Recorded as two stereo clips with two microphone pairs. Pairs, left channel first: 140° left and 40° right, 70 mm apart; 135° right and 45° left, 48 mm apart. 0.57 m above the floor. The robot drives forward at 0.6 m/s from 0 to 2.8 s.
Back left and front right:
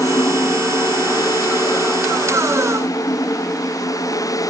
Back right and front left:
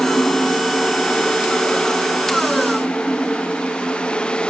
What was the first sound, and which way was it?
Only background noise.